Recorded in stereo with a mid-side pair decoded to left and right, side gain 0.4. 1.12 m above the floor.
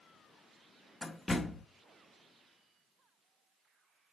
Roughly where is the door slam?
Ahead left.